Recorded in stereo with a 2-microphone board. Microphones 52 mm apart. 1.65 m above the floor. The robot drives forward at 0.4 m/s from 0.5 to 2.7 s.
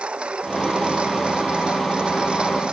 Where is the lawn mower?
25° right (ahead or behind); by 2.7 s 20° right (ahead or behind).